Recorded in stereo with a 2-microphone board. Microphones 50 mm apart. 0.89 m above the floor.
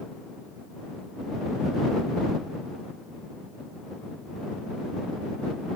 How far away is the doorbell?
No doorbell in this recording.